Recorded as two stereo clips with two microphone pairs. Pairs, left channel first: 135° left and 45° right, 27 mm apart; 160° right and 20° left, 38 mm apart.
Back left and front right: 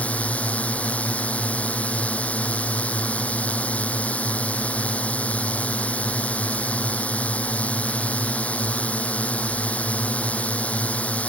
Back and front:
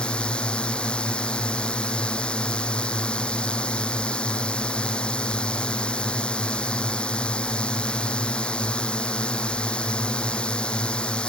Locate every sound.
0.0 s a drone: 145° left